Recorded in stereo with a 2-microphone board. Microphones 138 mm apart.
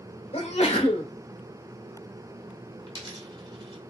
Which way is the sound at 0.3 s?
45° left (ahead or behind).